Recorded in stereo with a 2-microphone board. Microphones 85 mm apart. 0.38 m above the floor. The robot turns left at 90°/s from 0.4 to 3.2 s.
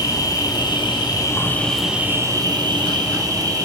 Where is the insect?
125° left, 2.5 m; by 3.6 s 130° right, 2.5 m.